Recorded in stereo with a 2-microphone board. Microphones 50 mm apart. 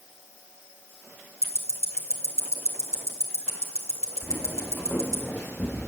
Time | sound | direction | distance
1.4 | ticking | 75° left (ahead or behind) | 2 m
4.2 | footsteps | 30° left (ahead or behind) | 4.5 m